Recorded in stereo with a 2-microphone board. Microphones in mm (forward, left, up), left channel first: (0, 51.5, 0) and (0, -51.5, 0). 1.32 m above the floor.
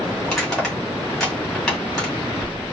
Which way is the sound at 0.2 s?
5° left (ahead or behind).